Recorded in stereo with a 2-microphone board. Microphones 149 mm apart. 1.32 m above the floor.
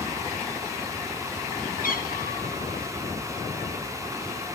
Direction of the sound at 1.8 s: 70° left (ahead or behind).